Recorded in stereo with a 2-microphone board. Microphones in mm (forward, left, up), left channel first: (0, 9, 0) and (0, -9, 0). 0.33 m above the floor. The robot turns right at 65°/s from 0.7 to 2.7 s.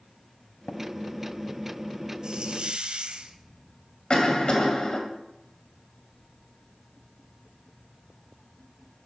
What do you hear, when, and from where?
0.7 s tapping: 65° left (ahead or behind), 0.6 m; by 0.8 s 55° left (ahead or behind), 0.6 m
2.2 s a hiss: 130° right, 0.6 m; by 3.4 s 100° right, 0.6 m
4.1 s a cough: 50° left (ahead or behind), 1.7 m